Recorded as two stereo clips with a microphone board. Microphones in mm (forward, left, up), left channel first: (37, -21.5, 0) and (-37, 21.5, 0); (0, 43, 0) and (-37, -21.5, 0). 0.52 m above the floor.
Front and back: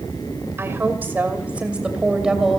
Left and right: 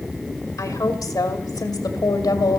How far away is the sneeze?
I don't hear a sneeze.